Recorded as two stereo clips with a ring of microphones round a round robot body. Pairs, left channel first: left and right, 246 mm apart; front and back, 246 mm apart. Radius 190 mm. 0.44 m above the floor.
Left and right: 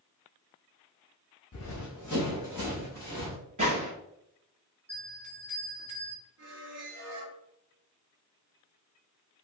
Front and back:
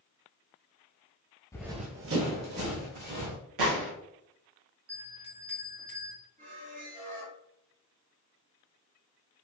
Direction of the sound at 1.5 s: 75° left.